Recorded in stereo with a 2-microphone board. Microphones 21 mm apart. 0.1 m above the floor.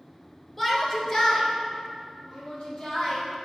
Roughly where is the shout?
Centre.